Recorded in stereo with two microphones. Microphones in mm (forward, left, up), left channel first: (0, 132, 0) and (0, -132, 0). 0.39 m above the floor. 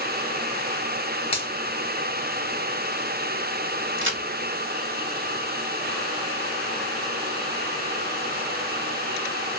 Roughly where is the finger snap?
Left.